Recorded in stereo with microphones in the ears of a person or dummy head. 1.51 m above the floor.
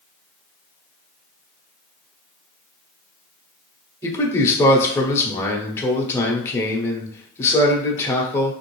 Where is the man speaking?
15° left (ahead or behind), 0.8 m.